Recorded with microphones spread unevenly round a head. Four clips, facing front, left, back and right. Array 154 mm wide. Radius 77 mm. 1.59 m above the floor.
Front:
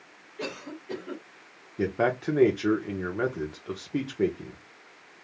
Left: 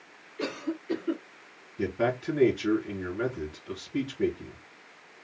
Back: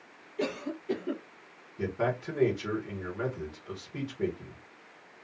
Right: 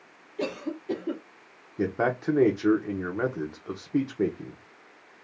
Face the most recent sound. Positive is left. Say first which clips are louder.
# right 2 dB, front 5 dB
turn(degrees=-45)